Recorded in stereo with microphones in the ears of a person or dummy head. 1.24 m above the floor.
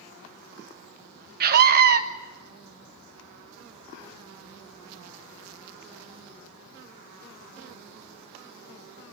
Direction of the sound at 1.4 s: 50° right (ahead or behind).